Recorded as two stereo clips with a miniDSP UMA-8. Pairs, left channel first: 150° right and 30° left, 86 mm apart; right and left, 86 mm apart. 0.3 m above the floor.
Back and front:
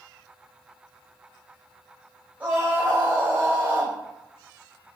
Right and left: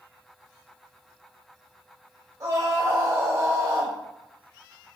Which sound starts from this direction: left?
A scream, at 2.4 s.